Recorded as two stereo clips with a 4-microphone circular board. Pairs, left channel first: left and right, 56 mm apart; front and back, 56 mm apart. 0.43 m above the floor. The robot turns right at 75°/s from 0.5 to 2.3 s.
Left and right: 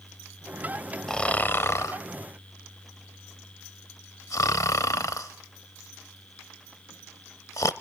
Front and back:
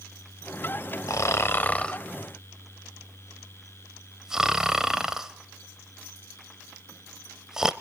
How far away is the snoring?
About 0.7 m.